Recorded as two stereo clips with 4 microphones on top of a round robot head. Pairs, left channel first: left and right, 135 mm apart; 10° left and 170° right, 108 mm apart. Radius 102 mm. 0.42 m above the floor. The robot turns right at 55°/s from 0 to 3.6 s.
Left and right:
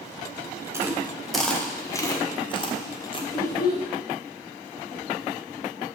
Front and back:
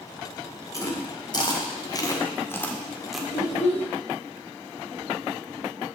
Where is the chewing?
30° right, 1.7 m; by 3.2 s 105° left, 1.7 m.